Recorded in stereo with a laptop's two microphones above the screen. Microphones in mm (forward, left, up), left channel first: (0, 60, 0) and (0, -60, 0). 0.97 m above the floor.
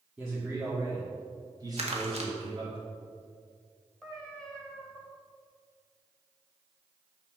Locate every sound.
0.2 s a man speaking: 5° right (ahead or behind), 2.5 m; by 2.8 s 50° right (ahead or behind), 3 m
1.8 s crumpling: 60° right (ahead or behind), 1.6 m
4.0 s a cat meowing: 5° left (ahead or behind), 2.5 m